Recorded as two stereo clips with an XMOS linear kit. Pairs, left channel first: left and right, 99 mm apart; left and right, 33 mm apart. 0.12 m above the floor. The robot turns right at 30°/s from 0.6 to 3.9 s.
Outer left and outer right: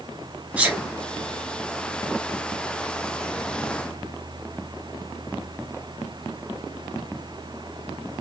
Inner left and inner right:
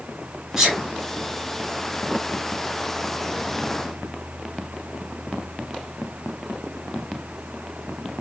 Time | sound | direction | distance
0.6 | a sneeze | 15° right (ahead or behind) | 2.0 m